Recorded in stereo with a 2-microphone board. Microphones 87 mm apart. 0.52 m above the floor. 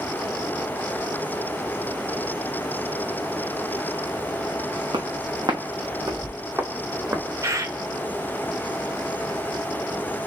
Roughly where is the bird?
Right.